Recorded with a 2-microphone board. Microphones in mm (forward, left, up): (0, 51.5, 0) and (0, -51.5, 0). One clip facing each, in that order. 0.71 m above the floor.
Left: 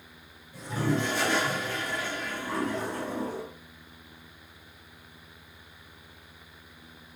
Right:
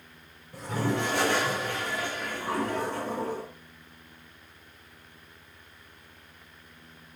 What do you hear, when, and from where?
0.5 s a toilet flushing: 70° right (ahead or behind), 6 m